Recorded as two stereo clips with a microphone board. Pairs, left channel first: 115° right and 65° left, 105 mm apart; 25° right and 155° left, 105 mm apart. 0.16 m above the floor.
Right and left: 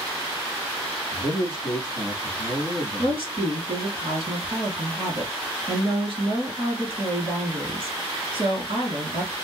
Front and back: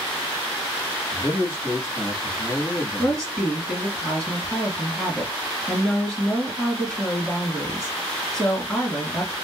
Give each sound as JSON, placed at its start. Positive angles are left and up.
{"t": 1.1, "sound": "a man speaking", "azimuth_deg": 35, "distance_m": 1.7}
{"t": 3.0, "sound": "a woman speaking", "azimuth_deg": 60, "distance_m": 2.5}